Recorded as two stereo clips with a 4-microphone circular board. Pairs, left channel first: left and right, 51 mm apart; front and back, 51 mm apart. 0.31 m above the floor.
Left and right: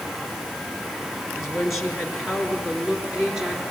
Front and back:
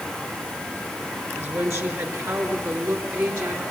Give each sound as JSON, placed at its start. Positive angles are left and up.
{"t": 1.4, "sound": "a woman speaking", "azimuth_deg": 175, "distance_m": 4.0}